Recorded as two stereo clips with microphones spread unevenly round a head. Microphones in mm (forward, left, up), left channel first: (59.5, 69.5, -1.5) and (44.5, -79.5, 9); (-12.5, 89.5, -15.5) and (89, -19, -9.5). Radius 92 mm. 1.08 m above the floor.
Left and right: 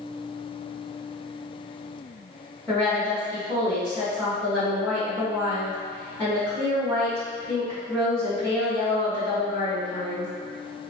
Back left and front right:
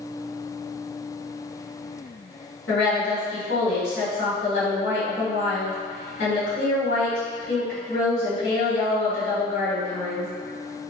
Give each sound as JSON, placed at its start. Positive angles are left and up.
{"t": 2.7, "sound": "a woman speaking", "azimuth_deg": 160, "distance_m": 1.9}